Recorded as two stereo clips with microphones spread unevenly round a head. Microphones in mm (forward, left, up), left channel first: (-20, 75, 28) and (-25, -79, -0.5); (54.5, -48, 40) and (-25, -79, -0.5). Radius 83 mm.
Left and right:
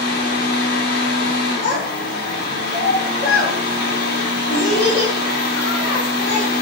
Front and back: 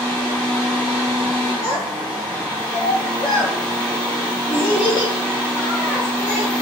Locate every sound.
0.0 s a fan: 120° left, 1.0 m
1.6 s a child speaking: 40° left, 0.9 m